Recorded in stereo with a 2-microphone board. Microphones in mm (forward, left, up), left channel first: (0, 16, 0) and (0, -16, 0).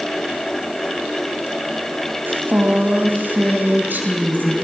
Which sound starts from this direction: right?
A woman speaking, at 2.3 s.